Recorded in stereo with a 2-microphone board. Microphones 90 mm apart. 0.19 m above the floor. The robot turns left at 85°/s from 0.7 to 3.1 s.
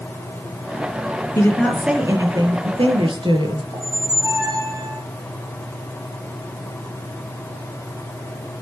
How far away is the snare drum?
No snare drum in this recording.